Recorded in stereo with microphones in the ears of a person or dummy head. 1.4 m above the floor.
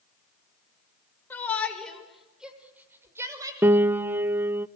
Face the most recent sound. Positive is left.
turn(degrees=-10)  # may be behind; listen again after turning